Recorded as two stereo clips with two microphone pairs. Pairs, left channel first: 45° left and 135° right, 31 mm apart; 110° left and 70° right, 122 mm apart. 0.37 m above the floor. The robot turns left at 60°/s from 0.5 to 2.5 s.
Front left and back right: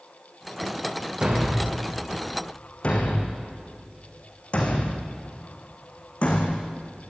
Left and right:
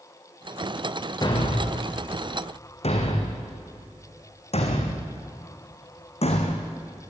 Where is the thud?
165° left, 3.5 m; by 7.1 s 90° left, 3.5 m.